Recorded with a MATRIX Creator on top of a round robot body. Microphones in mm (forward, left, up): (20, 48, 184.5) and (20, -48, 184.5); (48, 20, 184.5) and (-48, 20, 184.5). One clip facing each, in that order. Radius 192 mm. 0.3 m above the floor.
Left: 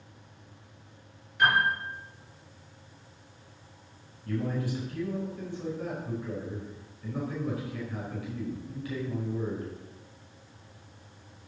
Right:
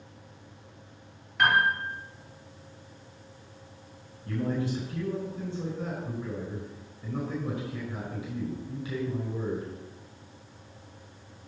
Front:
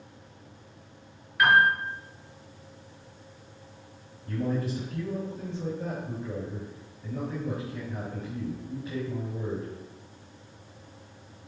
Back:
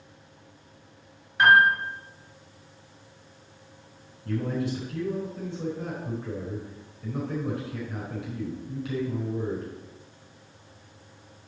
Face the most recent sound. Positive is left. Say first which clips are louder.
# right 2 dB, back 1 dB
turn(degrees=-160)